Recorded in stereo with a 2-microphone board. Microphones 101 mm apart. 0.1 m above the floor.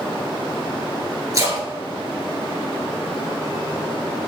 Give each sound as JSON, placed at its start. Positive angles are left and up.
{"t": 1.3, "sound": "a splash", "side_deg": -35, "distance_m": 1.5}